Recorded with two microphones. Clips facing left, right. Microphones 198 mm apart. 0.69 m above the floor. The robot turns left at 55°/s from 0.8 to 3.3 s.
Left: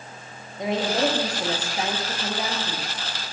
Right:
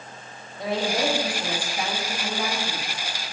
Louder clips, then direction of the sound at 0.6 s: Left 2 dB; 20° left (ahead or behind).